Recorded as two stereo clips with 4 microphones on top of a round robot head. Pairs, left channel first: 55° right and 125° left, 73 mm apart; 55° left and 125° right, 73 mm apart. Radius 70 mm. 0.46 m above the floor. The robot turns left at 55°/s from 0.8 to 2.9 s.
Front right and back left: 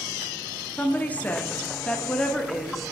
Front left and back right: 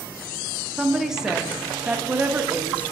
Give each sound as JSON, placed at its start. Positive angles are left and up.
{"t": 0.8, "sound": "a woman speaking", "azimuth_deg": -40, "distance_m": 0.8}